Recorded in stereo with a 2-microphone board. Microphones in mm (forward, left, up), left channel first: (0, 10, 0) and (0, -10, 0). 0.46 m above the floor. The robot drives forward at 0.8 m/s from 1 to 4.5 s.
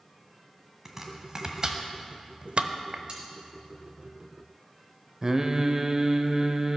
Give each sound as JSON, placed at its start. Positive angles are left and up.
{"t": 0.8, "sound": "chopping", "side_deg": -20, "distance_m": 1.5}
{"t": 3.1, "sound": "cutlery clinking", "side_deg": -50, "distance_m": 2.5}
{"t": 5.2, "sound": "singing", "side_deg": -30, "distance_m": 0.7}